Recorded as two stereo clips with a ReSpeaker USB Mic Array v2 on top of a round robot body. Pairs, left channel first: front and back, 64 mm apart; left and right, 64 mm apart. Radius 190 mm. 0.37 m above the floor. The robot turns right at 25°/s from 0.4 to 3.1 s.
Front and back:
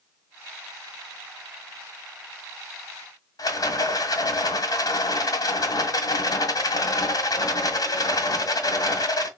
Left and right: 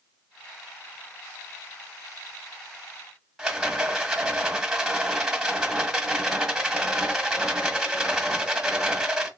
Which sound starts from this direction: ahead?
A rattle, at 3.4 s.